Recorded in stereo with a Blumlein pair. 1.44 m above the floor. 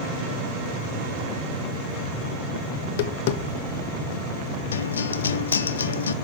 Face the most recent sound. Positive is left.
turn(degrees=70)